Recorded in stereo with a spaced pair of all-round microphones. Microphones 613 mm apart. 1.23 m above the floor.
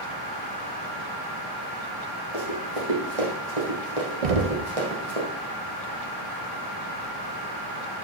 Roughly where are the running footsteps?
Right.